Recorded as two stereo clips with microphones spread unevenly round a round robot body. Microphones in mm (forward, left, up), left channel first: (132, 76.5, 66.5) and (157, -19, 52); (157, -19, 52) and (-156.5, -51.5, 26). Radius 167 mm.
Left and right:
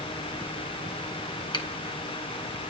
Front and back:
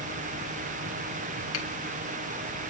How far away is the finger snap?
About 1.9 m.